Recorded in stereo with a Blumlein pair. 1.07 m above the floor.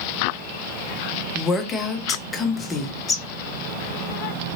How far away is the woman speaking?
About 0.6 m.